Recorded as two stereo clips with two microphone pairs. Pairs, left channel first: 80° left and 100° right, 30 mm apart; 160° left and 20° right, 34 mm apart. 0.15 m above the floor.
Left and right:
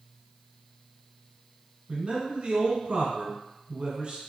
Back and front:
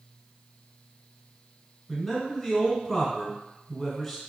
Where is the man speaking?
115° right, 1.3 m.